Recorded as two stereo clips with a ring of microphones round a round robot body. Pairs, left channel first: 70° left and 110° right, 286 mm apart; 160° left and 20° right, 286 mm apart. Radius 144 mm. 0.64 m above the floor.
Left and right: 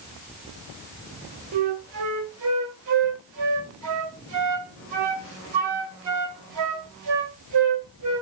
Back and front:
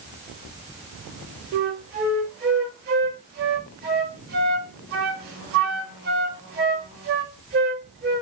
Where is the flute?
80° right, 1.1 m.